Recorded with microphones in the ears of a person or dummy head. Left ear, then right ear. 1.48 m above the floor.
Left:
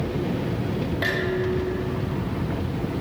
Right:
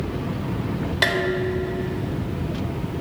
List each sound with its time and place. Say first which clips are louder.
1.0 s dishes clattering: right 4 dB; 45° right (ahead or behind), 4 m